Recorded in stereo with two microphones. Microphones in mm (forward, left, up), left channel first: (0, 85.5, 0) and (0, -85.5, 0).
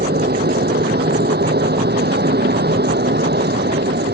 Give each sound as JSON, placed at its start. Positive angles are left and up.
{"t": 0.0, "sound": "an aircraft", "side_deg": -70}